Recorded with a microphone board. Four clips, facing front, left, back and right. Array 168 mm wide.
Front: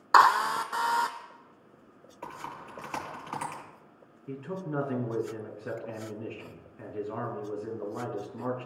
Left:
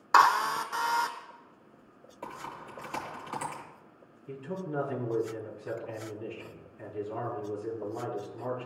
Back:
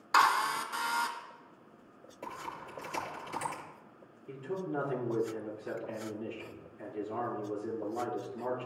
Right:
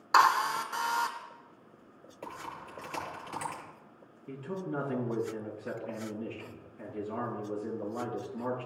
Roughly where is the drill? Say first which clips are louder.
Left 2 dB, front 6 dB; ahead.